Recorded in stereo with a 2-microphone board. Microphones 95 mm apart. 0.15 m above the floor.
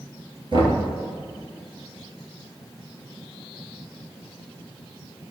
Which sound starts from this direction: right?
Knocking, at 0.5 s.